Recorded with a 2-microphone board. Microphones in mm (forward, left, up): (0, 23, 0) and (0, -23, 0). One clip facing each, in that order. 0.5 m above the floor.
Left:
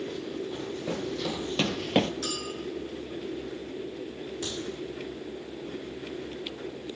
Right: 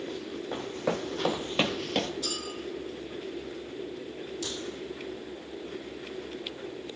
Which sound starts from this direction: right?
Running footsteps, at 0.5 s.